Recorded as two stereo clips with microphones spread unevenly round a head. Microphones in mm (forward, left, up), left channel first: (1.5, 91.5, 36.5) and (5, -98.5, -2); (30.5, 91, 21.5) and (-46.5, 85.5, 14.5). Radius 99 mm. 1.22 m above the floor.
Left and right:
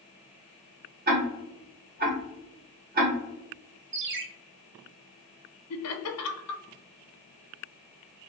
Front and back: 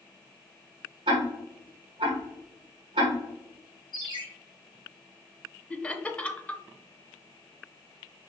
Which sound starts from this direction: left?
Laughter, at 5.7 s.